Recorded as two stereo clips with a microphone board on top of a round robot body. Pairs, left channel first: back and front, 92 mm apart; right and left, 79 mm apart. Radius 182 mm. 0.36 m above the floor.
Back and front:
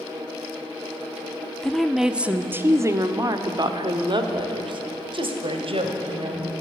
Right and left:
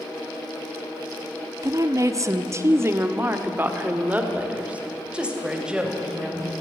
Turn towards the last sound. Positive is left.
turn(degrees=5)